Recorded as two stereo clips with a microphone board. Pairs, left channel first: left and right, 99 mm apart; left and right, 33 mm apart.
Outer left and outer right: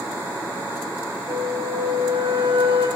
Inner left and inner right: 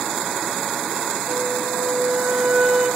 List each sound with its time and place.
1.3 s a flute: 75° right (ahead or behind), 0.9 m